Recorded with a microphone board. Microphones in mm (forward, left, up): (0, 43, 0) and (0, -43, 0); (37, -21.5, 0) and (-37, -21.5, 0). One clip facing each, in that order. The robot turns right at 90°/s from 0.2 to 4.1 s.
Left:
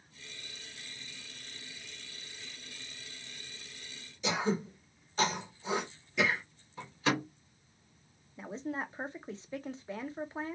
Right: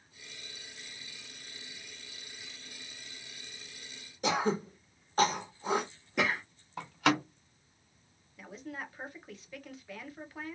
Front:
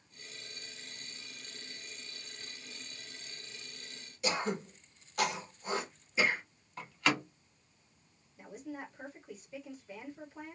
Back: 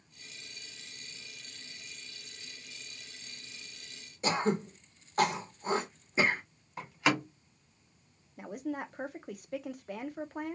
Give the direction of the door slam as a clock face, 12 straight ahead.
4 o'clock.